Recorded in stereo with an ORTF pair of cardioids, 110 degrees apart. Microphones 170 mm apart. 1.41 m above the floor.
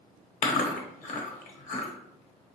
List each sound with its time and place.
0.4 s chewing: 60° left, 0.9 m